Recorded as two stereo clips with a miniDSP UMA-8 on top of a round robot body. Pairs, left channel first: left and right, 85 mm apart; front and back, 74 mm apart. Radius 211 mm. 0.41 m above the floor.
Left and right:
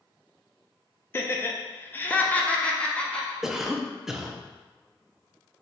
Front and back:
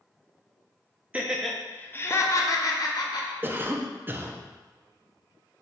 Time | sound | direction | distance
1.1 | laughter | 120° left | 0.8 m
3.4 | a cough | 170° right | 0.8 m